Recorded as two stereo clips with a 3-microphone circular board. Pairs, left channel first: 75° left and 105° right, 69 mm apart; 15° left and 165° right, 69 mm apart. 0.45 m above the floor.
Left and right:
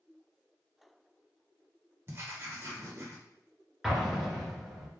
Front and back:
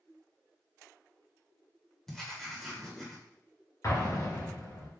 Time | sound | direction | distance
2.1 | writing | 70° right | 1.4 m
3.8 | an explosion | 20° right | 2 m